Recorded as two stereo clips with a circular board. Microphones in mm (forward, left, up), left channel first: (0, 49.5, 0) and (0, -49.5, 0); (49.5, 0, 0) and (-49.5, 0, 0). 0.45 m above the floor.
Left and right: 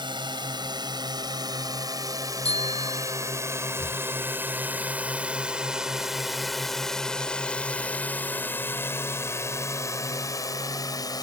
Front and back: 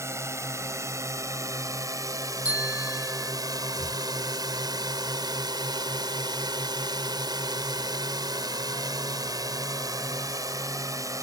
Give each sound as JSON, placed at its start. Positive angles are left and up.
{"t": 0.0, "sound": "a drone", "azimuth_deg": -120}
{"t": 2.5, "sound": "a bicycle bell", "azimuth_deg": 105}
{"t": 3.8, "sound": "breathing", "azimuth_deg": -175}